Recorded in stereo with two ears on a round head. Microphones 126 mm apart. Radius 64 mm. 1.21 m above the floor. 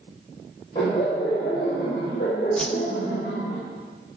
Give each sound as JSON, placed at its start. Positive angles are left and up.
{"t": 0.8, "sound": "laughter", "side_deg": 35, "distance_m": 6.0}
{"t": 2.6, "sound": "a whoosh", "side_deg": 5, "distance_m": 0.7}